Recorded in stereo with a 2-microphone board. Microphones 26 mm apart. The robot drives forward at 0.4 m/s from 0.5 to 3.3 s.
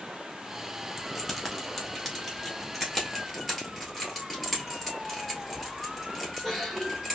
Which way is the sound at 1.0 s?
Centre (ahead or behind).